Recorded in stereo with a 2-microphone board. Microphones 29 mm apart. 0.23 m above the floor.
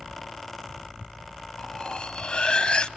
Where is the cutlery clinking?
40° left (ahead or behind), 0.9 m.